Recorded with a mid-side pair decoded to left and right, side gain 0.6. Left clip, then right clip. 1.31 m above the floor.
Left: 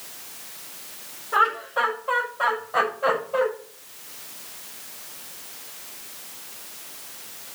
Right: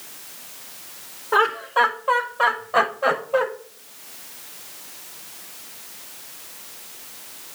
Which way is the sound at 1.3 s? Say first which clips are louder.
Right 3 dB; 55° right.